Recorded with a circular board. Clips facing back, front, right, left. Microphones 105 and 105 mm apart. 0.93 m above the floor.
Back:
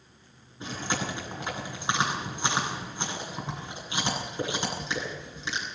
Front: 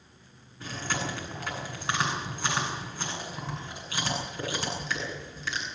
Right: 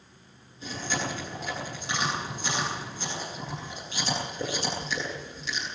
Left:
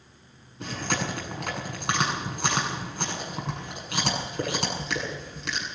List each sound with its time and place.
0.6 s chewing: 110° left, 8.5 m